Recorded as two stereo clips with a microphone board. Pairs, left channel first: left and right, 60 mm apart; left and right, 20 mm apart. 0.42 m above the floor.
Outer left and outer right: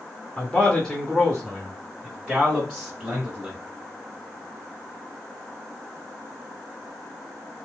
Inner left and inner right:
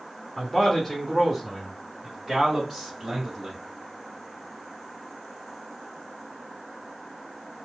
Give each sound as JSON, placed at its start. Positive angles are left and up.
{"t": 0.4, "sound": "a man speaking", "side_deg": 25, "distance_m": 0.8}